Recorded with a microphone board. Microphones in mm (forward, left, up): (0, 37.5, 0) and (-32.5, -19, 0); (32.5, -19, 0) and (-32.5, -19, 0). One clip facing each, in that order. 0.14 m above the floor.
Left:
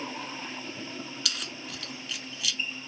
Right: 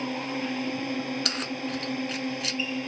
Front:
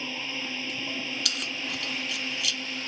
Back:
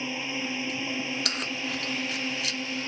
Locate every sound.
0.0 s a drone: 105° right
1.2 s keys jangling: 145° right